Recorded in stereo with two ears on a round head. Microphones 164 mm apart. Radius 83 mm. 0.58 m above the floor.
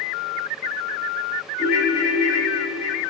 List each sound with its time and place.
1.6 s a ringtone: centre (ahead or behind), 2.5 m